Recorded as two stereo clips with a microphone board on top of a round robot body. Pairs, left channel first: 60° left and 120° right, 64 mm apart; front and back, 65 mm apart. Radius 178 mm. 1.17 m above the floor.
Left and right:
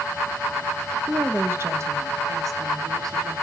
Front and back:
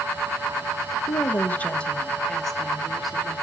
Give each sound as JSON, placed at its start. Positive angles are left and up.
{"t": 1.1, "sound": "a woman speaking", "azimuth_deg": -50, "distance_m": 1.1}